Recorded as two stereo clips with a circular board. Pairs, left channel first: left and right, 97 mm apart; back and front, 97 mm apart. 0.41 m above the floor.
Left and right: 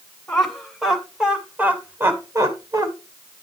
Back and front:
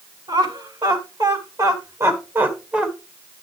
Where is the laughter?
10° left, 2.5 m; by 2.9 s 75° right, 1.8 m.